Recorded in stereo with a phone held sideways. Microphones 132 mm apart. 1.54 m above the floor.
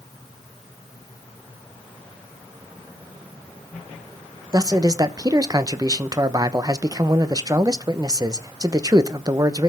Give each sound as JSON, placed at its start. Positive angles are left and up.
{"t": 4.5, "sound": "a man speaking", "side_deg": -30, "distance_m": 0.9}